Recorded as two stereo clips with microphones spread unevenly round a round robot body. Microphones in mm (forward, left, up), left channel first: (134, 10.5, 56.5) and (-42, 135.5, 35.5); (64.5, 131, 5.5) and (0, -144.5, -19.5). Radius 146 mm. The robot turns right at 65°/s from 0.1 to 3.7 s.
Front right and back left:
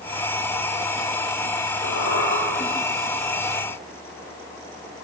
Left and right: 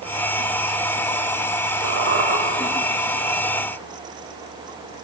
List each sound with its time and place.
1.8 s a squeak: 75° right, 6 m; by 2.4 s 40° right, 6 m